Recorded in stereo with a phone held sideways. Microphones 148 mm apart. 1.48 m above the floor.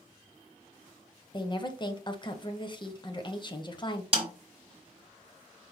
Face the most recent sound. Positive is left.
turn(degrees=-40)  # may be behind; listen again after turning